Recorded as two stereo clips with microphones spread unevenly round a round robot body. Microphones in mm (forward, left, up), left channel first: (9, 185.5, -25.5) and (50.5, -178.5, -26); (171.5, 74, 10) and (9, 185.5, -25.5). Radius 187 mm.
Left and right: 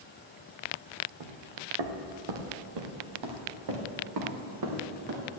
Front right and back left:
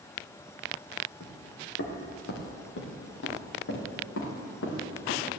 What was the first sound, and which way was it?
Footsteps, 80° right.